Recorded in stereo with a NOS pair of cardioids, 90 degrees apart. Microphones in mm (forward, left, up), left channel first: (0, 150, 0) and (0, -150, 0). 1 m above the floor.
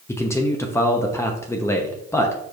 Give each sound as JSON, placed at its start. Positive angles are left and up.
{"t": 0.1, "sound": "a man speaking", "azimuth_deg": 10, "distance_m": 0.7}